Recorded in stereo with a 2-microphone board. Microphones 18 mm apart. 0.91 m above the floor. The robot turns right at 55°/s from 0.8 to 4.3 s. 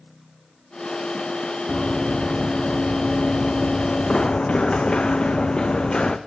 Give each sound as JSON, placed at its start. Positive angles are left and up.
{"t": 1.7, "sound": "running footsteps", "side_deg": -15, "distance_m": 2.5}